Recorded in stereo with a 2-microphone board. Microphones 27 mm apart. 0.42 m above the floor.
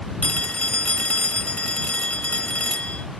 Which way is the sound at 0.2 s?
65° left (ahead or behind).